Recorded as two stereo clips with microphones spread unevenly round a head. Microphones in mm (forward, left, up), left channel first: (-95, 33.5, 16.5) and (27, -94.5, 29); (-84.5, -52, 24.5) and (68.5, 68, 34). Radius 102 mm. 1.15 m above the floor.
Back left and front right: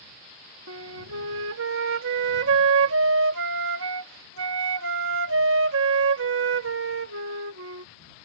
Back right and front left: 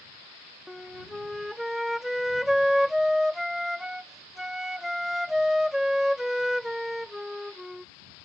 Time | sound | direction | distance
0.7 | a flute | 50° right | ?